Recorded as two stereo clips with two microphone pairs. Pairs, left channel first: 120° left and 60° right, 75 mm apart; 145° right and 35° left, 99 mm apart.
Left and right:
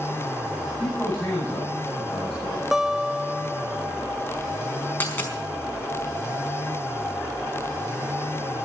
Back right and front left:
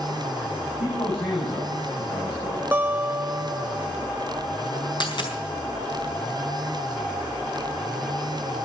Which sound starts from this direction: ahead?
A guitar, at 2.7 s.